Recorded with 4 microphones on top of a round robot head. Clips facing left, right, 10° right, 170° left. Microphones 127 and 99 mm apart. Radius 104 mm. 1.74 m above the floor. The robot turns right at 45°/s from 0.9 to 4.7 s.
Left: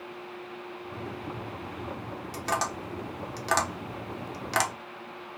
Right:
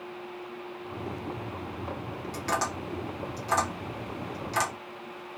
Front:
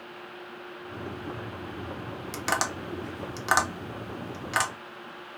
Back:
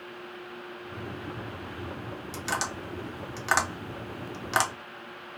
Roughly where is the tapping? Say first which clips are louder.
Even, front 4 dB; ahead.